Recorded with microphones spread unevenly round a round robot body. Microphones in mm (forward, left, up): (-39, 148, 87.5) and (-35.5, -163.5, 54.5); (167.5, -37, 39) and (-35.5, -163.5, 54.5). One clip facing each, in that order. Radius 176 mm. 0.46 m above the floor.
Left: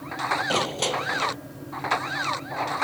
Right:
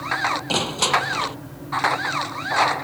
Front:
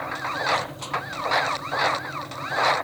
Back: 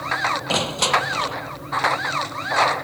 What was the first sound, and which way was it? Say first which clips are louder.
Crushing: right 2 dB, back 10 dB; 160° right.